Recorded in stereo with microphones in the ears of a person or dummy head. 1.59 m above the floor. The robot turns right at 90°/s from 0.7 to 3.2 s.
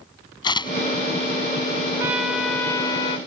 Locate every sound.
0.4 s tearing paper: 20° left (ahead or behind); by 1.1 s 10° right (ahead or behind)
2.0 s a trumpet: 15° right (ahead or behind); by 3.2 s 20° left (ahead or behind)